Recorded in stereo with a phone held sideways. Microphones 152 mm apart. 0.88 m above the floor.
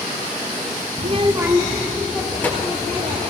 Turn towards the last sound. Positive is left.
turn(degrees=20)  # may be behind; listen again after turning